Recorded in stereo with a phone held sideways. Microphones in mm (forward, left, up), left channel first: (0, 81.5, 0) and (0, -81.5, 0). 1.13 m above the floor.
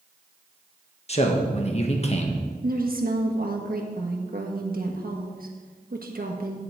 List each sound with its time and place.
1.1 s a man speaking: 40° left (ahead or behind), 1.4 m
2.6 s a woman speaking: 65° right (ahead or behind), 1.5 m